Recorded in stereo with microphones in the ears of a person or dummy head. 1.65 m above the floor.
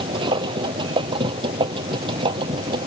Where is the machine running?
25° right (ahead or behind).